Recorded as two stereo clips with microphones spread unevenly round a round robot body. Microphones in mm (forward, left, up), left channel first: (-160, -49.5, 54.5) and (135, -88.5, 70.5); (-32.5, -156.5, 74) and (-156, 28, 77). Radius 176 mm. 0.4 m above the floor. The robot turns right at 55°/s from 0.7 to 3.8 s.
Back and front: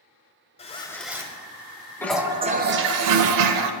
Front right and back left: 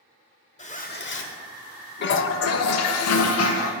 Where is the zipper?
120° right, 0.9 m; by 1.4 s 80° right, 0.9 m.